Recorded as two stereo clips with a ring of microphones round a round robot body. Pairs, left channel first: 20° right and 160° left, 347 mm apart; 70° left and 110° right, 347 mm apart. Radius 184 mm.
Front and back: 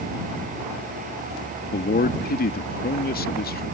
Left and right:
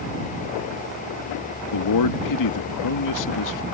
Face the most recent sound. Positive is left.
turn(degrees=40)